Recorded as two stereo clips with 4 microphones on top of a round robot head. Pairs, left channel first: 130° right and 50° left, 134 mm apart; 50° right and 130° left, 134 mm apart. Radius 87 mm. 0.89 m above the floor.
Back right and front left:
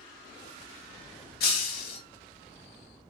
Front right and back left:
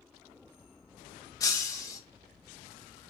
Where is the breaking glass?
120° right, 1.1 m.